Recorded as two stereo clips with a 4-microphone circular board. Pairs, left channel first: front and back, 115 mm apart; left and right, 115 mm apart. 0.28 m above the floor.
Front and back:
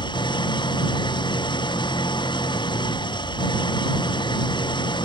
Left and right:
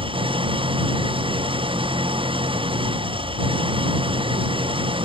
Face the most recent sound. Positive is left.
turn(degrees=-50)